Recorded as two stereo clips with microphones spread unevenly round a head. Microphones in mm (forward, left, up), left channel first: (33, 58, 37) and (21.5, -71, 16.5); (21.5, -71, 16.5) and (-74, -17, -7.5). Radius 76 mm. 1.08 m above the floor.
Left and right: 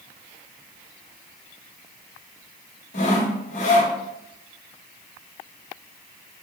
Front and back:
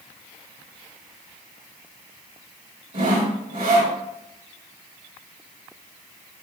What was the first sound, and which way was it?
Sawing, 90° left.